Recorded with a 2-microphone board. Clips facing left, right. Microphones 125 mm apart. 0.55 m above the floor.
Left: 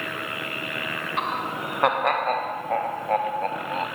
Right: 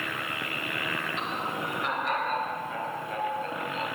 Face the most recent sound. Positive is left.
turn(degrees=55)  # may be behind; listen again after turning